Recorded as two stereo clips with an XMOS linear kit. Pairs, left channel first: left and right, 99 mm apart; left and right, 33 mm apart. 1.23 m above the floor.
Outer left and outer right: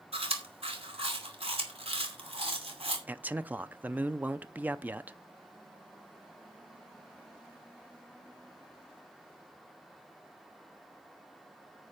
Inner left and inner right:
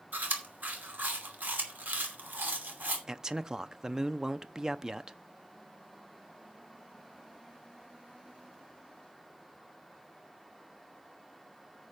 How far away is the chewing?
About 2.5 m.